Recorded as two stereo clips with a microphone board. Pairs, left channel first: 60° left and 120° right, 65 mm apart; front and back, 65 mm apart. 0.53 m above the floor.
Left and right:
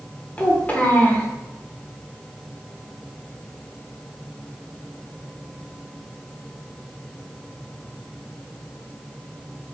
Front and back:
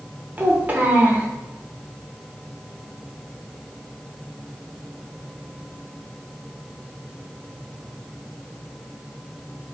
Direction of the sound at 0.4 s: 120° left.